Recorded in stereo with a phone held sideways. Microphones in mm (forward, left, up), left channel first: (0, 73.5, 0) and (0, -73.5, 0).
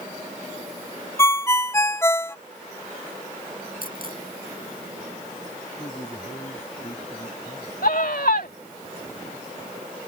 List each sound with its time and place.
1.2 s a ringtone: 20° left (ahead or behind)
3.8 s a dropped coin: 80° left
5.8 s a man speaking: 40° left (ahead or behind)
7.8 s a scream: 80° left